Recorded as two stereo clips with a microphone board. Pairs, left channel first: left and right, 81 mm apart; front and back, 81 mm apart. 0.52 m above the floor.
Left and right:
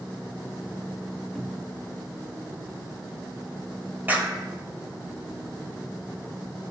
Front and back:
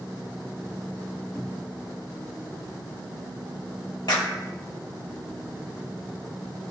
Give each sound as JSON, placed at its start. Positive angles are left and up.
{"t": 1.4, "sound": "a cupboard door", "azimuth_deg": 5, "distance_m": 1.1}
{"t": 4.1, "sound": "a clap", "azimuth_deg": -25, "distance_m": 1.5}